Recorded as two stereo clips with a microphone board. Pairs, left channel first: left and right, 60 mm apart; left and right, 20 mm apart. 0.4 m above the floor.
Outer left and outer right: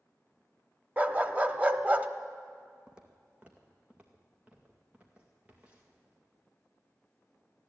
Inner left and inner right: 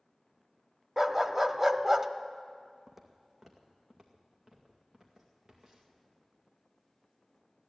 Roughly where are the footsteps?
Centre.